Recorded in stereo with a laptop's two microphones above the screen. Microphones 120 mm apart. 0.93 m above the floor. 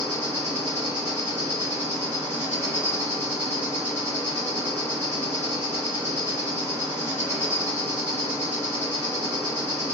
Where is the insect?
15° left (ahead or behind), 1.0 m.